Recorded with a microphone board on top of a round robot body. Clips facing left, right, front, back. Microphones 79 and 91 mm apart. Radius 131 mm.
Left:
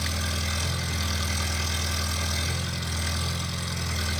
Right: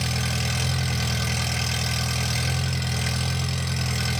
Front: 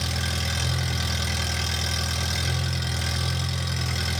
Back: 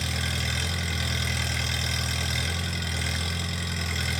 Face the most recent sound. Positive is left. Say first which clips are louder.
# right 3 dB, front 1 dB
turn(degrees=-65)